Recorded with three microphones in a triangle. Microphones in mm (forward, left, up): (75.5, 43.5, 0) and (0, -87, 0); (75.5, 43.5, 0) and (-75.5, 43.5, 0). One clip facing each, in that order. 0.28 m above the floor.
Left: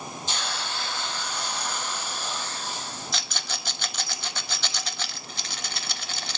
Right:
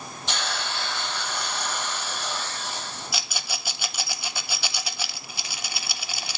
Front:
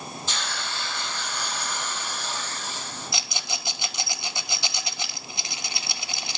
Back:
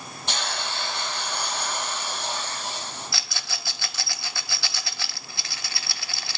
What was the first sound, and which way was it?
A hiss, 150° right.